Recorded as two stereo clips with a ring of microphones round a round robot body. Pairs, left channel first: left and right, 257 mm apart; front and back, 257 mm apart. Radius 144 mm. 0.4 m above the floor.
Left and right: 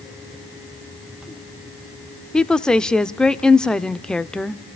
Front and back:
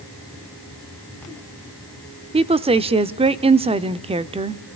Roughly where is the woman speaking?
Behind.